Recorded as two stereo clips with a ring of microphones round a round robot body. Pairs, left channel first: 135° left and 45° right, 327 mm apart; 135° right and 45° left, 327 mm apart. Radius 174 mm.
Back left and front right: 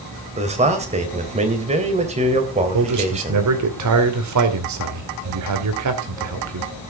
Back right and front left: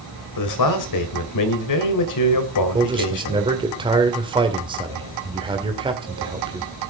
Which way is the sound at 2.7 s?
30° right.